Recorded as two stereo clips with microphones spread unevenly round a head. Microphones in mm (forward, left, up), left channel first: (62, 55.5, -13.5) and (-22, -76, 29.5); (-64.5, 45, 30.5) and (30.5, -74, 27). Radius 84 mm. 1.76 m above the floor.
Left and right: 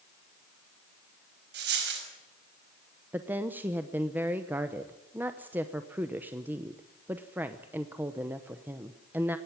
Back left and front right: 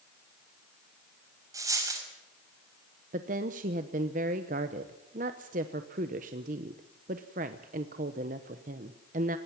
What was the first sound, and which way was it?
A dropped coin, 120° right.